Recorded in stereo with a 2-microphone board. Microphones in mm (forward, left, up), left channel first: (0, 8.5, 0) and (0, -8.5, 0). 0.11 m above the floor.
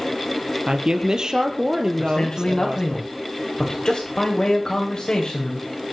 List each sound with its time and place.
0.7 s a woman speaking: 45° right (ahead or behind), 3 m
2.0 s a man speaking: 50° left (ahead or behind), 7.5 m